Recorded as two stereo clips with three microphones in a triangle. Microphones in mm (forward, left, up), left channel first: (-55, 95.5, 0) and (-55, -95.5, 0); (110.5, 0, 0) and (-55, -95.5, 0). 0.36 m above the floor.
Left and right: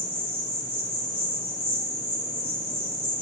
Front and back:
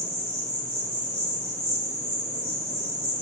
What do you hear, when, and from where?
0.0 s an insect: 125° right, 2.0 m